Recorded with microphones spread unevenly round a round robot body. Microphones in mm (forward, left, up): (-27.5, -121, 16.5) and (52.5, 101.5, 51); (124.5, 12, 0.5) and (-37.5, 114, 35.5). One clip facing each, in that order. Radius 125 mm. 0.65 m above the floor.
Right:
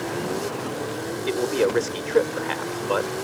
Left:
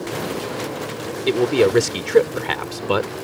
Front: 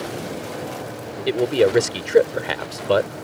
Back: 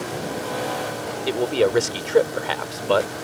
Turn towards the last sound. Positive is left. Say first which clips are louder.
# left 6 dB, front 3 dB
turn(degrees=35)